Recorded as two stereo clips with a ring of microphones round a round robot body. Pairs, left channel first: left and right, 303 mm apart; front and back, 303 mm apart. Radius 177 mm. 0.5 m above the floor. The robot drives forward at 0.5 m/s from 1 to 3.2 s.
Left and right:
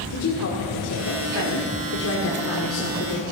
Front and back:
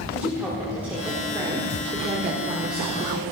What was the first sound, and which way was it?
A woman speaking, 95° left.